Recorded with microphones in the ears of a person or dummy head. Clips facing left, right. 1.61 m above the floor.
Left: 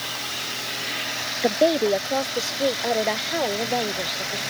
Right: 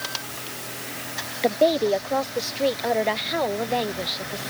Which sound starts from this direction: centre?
A woman speaking, at 1.4 s.